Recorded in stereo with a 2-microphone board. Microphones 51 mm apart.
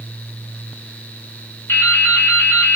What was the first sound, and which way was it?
Dripping, 60° left (ahead or behind).